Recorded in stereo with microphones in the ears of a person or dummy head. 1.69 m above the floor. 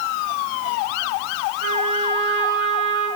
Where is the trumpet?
55° right (ahead or behind), 6 m.